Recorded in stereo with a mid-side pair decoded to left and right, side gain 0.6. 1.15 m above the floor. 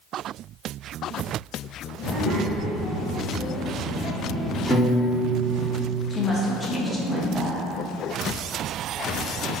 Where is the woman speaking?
10° left, 0.8 m.